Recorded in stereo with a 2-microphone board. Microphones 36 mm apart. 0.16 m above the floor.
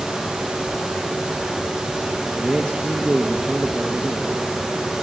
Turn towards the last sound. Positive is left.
turn(degrees=-10)  # may be behind; listen again after turning